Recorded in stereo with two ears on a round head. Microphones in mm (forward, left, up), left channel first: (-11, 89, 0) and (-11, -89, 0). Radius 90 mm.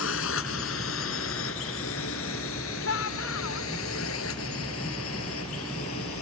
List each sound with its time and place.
0.0 s a drone: 70° left (ahead or behind); by 6.2 s 75° left (ahead or behind)
2.8 s a shout: 85° left